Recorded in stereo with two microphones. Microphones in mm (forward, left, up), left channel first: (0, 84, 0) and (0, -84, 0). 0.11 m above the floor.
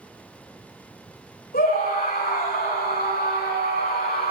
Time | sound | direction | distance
1.5 | a scream | 70° left (ahead or behind) | 7 m